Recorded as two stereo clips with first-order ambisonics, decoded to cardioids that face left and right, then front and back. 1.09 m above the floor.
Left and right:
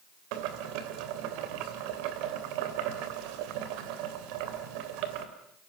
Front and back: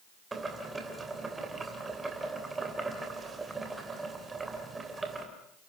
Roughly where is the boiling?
Right.